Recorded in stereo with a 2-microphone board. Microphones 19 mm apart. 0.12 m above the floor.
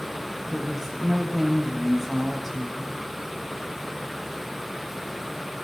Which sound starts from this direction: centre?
A woman speaking, at 0.5 s.